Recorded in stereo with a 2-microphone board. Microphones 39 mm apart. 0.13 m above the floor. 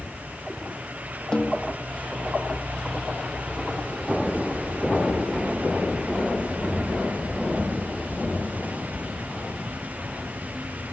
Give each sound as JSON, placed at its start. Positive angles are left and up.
{"t": 1.3, "sound": "a snare drum", "side_deg": 20, "distance_m": 2.5}